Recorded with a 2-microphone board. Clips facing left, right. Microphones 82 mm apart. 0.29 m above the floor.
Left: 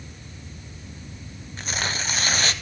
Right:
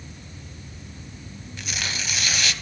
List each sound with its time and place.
1.6 s tearing paper: 40° left (ahead or behind), 0.7 m